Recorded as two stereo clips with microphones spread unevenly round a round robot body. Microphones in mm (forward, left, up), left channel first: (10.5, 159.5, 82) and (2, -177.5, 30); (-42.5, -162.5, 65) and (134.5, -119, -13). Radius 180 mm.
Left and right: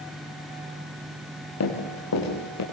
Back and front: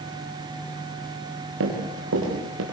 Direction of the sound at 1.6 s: 40° left.